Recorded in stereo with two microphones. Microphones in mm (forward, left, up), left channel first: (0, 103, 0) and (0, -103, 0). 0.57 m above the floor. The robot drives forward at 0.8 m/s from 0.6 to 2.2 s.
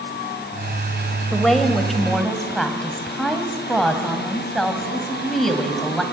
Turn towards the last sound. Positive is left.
turn(degrees=0)  # may be behind; listen again after turning